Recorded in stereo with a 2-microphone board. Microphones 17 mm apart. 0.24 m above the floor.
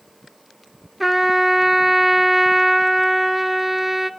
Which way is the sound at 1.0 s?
10° right (ahead or behind).